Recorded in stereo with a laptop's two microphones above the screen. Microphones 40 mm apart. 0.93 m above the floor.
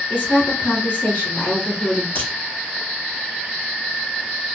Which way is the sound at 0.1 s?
55° left (ahead or behind).